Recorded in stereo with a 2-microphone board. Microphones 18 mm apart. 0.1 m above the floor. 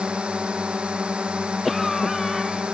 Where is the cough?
Centre (ahead or behind).